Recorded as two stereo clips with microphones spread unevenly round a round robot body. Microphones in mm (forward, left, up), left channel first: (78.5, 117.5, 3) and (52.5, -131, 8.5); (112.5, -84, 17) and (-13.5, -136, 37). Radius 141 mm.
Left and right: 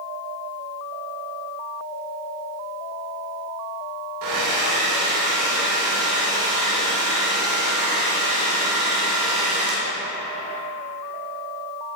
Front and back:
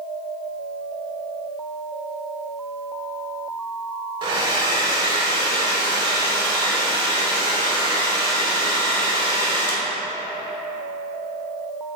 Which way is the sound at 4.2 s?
105° right.